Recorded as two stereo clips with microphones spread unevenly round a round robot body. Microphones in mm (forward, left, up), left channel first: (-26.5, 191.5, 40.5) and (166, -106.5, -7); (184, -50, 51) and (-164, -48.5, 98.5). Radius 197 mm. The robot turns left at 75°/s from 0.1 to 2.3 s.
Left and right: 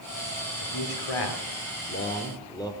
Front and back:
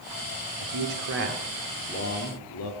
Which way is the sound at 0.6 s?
170° left.